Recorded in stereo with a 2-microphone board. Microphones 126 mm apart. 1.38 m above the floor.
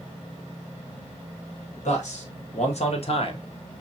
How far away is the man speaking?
About 1.5 m.